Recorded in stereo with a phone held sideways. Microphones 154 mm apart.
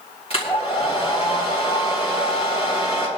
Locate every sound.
0.3 s a hair dryer: 40° left (ahead or behind), 3.5 m